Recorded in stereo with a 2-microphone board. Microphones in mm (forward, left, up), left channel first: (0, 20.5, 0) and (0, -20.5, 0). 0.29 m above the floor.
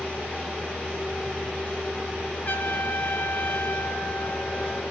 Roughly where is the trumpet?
Left.